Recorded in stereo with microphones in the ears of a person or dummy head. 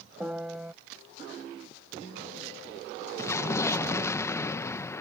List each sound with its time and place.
0.2 s a piano: 5° right (ahead or behind)
3.2 s an explosion: 15° left (ahead or behind)